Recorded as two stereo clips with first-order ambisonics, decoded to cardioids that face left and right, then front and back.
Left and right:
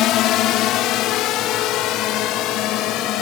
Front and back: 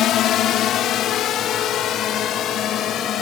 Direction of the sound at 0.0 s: 50° left.